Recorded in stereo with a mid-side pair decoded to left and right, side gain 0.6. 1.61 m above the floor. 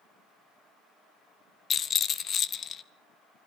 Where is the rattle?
40° left, 1.2 m.